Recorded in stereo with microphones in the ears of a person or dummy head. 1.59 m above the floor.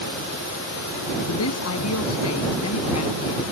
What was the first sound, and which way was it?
A man speaking, 80° left.